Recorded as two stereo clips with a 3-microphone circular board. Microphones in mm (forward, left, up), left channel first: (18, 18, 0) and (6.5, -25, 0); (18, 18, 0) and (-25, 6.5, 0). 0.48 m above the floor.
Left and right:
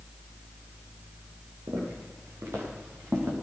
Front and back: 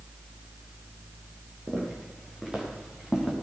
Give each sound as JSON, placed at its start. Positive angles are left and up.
{"t": 1.7, "sound": "footsteps", "azimuth_deg": -90, "distance_m": 7.0}